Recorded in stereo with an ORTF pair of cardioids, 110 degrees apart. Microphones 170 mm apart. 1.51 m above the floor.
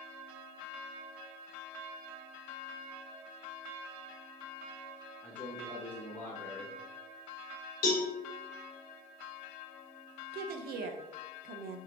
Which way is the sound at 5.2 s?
10° left.